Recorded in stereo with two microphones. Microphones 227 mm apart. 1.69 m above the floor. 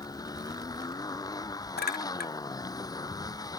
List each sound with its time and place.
0.0 s a motorcycle: 15° left (ahead or behind)
1.8 s a clink: 45° left (ahead or behind)